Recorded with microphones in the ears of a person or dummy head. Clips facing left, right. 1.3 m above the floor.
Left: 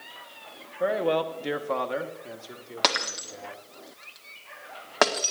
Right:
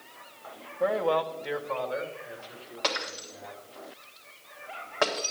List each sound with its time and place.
0.8 s a man speaking: 10° left (ahead or behind), 1.1 m; by 3.6 s 80° left, 3 m
2.8 s breaking glass: 70° left (ahead or behind), 1.6 m